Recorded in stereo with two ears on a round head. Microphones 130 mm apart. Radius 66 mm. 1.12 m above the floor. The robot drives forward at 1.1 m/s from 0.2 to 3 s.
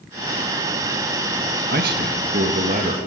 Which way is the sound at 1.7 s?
70° right (ahead or behind).